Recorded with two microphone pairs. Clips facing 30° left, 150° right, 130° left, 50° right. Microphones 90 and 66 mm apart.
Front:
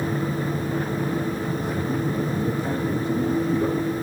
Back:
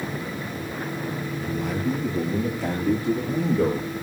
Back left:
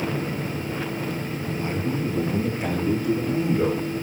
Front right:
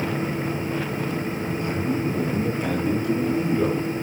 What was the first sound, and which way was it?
A man speaking, 165° right.